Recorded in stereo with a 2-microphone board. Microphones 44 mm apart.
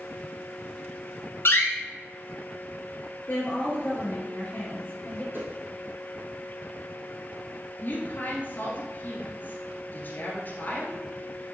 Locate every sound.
1.4 s a door slam: 55° left (ahead or behind), 1.4 m
3.3 s a woman speaking: 45° left (ahead or behind), 3 m
5.3 s a whoosh: 55° right (ahead or behind), 2 m
7.8 s a woman speaking: 40° left (ahead or behind), 2 m